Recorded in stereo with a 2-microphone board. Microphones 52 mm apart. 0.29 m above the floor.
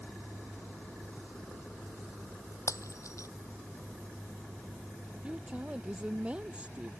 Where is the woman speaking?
20° right (ahead or behind).